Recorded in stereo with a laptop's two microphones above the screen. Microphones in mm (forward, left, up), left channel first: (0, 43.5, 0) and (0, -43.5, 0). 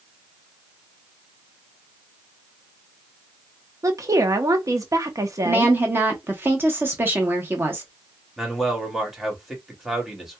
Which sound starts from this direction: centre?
A man speaking, at 8.4 s.